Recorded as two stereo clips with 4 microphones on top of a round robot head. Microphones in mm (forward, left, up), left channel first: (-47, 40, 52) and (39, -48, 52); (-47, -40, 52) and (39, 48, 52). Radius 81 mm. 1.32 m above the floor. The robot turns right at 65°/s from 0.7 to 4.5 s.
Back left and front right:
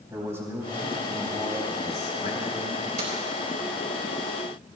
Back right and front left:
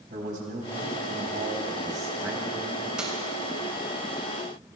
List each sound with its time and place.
0.1 s a man speaking: 25° left, 4 m; by 2.9 s 165° left, 4 m
3.0 s keys jangling: 35° right, 4 m; by 3.1 s 30° right, 4 m